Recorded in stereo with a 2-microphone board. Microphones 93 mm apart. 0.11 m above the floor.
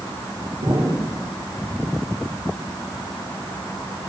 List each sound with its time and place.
0.6 s an explosion: 80° right, 6.5 m